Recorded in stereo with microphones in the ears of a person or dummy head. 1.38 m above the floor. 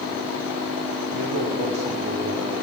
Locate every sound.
1.1 s a man speaking: 85° right, 0.9 m; by 2.5 s 55° right (ahead or behind), 2 m